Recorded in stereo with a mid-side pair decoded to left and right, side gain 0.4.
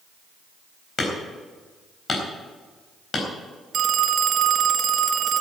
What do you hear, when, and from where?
1.0 s hammering: 50° left, 4 m
3.7 s a phone ringing: 65° right, 0.8 m